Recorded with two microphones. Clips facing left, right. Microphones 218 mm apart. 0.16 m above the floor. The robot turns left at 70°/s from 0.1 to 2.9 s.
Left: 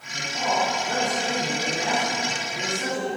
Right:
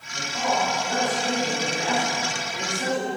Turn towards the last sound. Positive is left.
turn(degrees=-35)